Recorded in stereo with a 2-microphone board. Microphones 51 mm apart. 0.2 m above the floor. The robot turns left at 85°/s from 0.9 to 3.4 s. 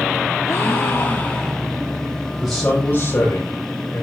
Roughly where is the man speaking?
Behind.